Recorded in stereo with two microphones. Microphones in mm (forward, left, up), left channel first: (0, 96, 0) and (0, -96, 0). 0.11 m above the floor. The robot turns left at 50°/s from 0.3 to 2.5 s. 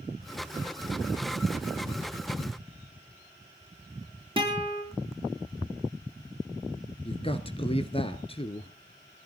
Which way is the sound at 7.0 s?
30° left (ahead or behind).